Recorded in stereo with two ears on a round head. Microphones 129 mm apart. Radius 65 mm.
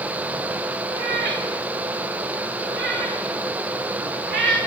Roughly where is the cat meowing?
Right.